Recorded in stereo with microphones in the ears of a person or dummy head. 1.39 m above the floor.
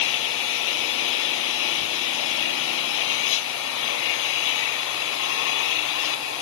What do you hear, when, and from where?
0.0 s an engine running: 75° left (ahead or behind)